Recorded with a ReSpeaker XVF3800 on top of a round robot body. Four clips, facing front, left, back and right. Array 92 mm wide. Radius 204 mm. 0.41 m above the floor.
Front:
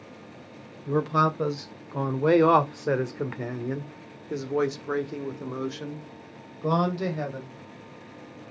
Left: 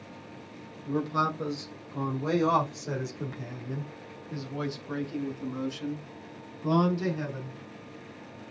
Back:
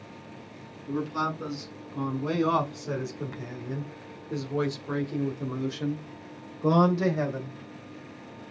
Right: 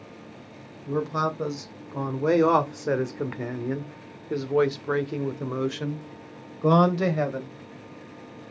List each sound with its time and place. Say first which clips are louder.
0.9 s a man speaking: right 2 dB, front 6 dB; 10° right, 2.5 m; by 7.5 s 105° right, 3 m